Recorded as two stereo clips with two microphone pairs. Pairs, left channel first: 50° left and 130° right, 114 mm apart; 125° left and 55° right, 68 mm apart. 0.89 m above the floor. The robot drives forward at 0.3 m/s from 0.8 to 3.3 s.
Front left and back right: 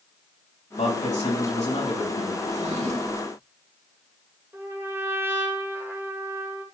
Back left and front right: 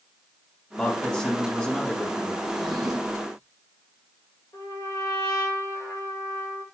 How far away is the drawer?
About 1.9 m.